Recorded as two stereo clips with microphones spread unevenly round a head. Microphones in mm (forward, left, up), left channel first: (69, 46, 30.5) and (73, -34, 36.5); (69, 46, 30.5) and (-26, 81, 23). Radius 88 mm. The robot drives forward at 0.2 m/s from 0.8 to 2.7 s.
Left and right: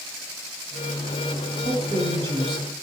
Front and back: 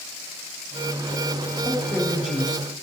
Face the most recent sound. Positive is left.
turn(degrees=-120)